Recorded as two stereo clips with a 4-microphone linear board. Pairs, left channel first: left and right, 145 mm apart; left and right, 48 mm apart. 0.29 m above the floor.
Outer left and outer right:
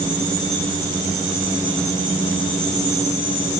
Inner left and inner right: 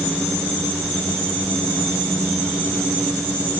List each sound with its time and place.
Only background noise.